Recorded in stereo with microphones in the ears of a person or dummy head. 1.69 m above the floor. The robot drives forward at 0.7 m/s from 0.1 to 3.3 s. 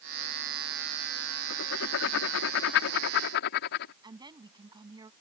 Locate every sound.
1.5 s writing: 80° left; by 3.9 s 65° left (ahead or behind)
4.0 s a woman speaking: 20° right (ahead or behind)